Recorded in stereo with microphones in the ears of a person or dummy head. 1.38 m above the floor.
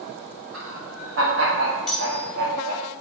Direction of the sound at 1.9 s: Centre (ahead or behind).